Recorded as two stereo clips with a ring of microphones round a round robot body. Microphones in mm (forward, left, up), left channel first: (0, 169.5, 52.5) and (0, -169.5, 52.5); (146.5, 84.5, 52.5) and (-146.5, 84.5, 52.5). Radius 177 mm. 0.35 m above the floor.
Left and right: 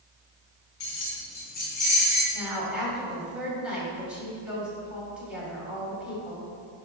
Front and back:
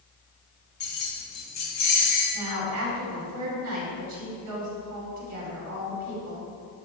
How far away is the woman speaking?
About 2.5 m.